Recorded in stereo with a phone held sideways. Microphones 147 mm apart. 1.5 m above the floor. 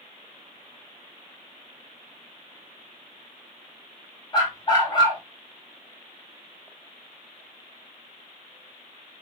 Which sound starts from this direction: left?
A dog barking, at 4.3 s.